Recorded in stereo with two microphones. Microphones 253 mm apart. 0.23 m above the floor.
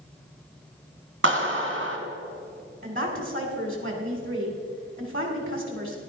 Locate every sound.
1.2 s a clap: 50° right (ahead or behind), 2 m
2.8 s a woman speaking: 35° right (ahead or behind), 1.7 m